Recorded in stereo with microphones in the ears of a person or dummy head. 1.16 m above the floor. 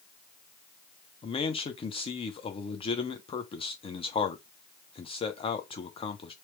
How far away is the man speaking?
About 0.5 m.